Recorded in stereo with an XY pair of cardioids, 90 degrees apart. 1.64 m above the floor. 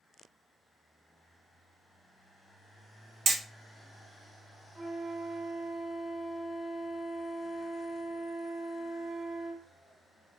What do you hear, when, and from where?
3.3 s hammering: 60° right, 1.1 m
4.8 s a flute: 30° right, 0.8 m